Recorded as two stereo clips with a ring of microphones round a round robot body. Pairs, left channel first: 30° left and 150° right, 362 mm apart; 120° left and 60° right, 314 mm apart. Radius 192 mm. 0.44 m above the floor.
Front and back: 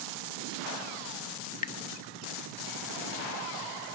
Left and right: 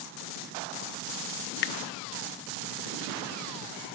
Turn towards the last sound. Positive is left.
turn(degrees=100)